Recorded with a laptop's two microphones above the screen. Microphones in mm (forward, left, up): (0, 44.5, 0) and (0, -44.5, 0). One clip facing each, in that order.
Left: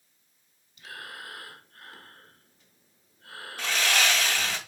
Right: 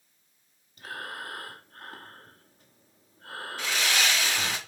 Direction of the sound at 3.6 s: 60° left (ahead or behind).